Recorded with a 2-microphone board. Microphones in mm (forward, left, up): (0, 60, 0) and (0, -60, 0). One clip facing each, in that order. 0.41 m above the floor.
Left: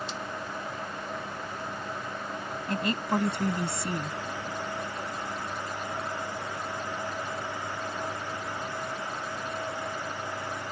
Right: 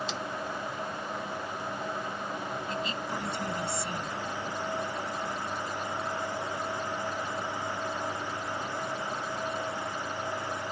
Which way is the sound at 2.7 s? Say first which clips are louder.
Left 10 dB; 55° left (ahead or behind).